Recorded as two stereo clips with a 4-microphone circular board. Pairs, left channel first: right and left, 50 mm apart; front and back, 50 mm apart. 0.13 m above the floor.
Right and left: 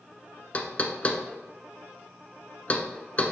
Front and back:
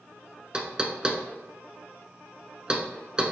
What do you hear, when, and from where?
0.5 s knocking: 125° right, 0.8 m